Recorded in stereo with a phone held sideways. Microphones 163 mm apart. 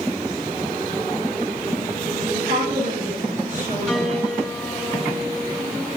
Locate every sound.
2.3 s a woman speaking: 60° right (ahead or behind), 9.5 m
3.9 s a piano: 5° left (ahead or behind), 4.5 m